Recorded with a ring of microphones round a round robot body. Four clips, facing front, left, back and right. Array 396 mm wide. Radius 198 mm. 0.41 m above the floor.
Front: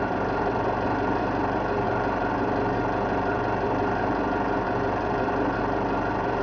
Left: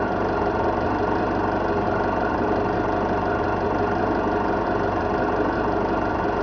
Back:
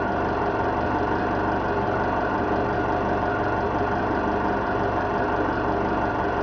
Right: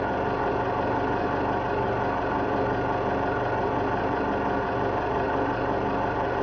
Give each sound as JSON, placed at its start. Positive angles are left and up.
{"t": 0.0, "sound": "an engine running", "azimuth_deg": 105, "distance_m": 9.5}